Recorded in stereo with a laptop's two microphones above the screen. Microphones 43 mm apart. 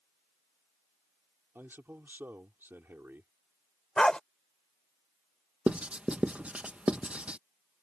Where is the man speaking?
60° right (ahead or behind).